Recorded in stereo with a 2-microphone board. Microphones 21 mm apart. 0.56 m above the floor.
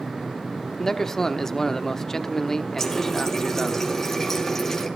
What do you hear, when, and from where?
0.8 s a man speaking: 20° left (ahead or behind), 0.9 m
2.8 s a running tap: 10° left (ahead or behind), 3.5 m